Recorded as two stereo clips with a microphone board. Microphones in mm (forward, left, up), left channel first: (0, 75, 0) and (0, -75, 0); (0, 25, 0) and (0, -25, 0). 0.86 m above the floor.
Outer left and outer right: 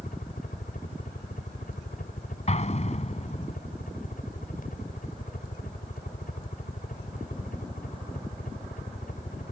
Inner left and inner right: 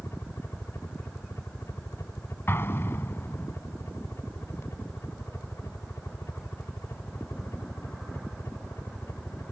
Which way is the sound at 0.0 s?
70° left (ahead or behind).